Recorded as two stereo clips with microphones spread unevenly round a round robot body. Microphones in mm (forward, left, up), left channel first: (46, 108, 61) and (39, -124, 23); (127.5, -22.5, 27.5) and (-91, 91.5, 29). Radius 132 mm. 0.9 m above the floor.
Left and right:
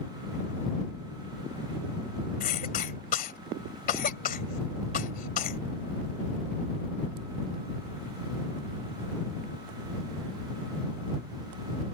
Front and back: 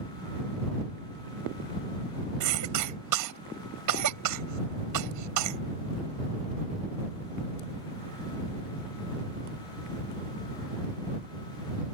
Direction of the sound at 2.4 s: 150° left.